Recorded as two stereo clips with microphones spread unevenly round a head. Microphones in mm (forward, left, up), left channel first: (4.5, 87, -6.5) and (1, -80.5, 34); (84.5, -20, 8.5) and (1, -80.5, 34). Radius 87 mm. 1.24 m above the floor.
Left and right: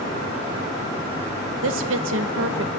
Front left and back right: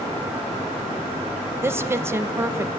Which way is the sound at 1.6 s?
75° right.